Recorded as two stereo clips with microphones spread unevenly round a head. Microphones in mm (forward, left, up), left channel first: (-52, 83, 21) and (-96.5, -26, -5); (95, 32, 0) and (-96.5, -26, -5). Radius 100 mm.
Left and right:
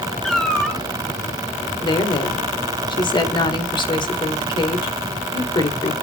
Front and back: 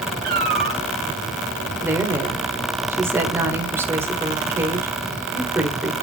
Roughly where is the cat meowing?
Behind left.